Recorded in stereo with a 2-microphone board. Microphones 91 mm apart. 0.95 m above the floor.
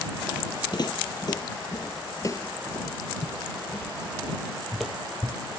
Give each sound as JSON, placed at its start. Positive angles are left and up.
{"t": 0.7, "sound": "footsteps", "side_deg": 50}